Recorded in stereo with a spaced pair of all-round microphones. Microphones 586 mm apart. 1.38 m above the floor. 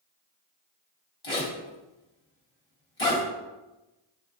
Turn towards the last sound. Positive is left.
turn(degrees=65)  # may be behind; listen again after turning